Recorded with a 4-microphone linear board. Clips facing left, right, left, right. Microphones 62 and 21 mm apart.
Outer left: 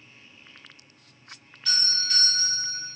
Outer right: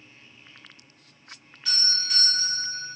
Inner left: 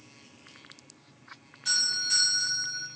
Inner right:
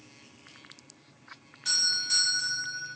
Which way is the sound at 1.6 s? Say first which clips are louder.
Outer left 1 dB, even; 15° right (ahead or behind).